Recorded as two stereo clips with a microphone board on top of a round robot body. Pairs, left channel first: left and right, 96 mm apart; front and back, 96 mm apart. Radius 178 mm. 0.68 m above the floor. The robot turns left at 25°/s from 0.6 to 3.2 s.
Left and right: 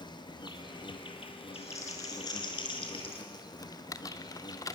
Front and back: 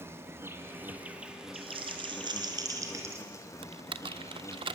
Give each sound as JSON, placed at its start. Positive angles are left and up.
{"t": 0.0, "sound": "an insect", "azimuth_deg": 120, "distance_m": 2.5}
{"t": 1.5, "sound": "crumpling", "azimuth_deg": 160, "distance_m": 4.0}
{"t": 3.6, "sound": "typing on a keyboard", "azimuth_deg": 150, "distance_m": 0.7}